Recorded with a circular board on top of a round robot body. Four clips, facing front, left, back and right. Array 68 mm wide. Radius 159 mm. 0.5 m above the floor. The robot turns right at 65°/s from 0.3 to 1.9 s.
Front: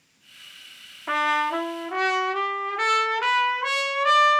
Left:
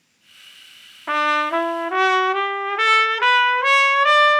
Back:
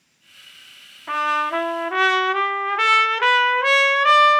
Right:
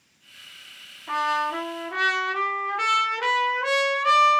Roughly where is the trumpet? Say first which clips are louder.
Left 5 dB, back 2 dB; left.